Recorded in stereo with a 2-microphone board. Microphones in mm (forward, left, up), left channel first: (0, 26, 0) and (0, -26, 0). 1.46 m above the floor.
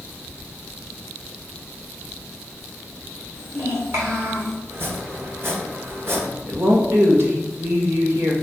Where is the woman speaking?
60° right (ahead or behind), 1.5 m.